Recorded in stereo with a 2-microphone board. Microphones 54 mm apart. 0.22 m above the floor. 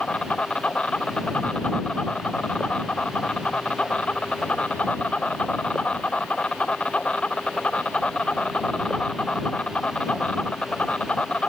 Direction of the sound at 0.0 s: 20° left (ahead or behind).